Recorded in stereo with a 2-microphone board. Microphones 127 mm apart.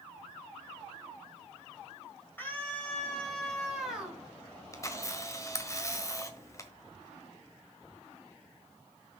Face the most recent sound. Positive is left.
turn(degrees=25)  # may be behind; listen again after turning